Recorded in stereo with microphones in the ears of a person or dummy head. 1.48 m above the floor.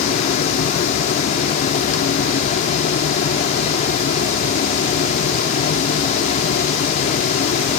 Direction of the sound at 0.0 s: 40° left (ahead or behind).